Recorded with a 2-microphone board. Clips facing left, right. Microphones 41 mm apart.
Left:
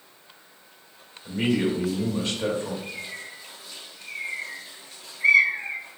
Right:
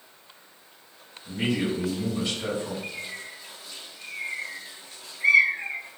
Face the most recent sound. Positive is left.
turn(degrees=5)  # may be behind; listen again after turning